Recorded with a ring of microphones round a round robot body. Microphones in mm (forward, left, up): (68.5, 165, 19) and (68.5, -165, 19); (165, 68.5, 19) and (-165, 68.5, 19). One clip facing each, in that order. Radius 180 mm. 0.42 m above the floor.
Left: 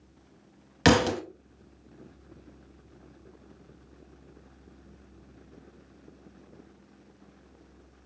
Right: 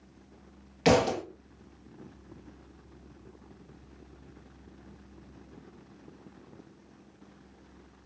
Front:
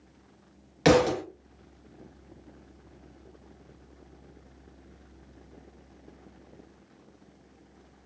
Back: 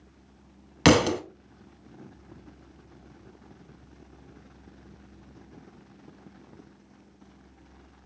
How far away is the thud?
About 0.8 m.